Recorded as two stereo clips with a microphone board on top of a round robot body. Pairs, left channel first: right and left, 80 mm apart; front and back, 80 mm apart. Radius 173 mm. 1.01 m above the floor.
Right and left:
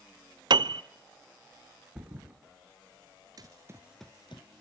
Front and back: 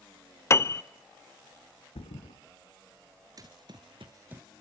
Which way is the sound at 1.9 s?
10° left.